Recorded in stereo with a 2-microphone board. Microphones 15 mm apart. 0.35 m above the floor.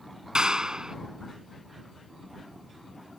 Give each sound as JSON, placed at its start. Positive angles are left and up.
{"t": 0.3, "sound": "a clap", "side_deg": -55}